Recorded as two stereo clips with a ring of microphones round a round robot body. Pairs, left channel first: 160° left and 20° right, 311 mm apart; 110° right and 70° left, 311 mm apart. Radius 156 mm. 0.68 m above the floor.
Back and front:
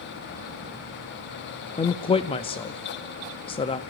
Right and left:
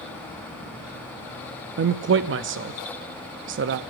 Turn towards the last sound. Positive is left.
turn(degrees=95)